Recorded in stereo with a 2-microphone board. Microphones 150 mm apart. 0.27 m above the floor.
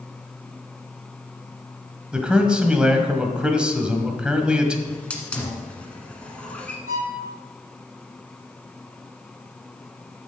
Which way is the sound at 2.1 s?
5° right (ahead or behind).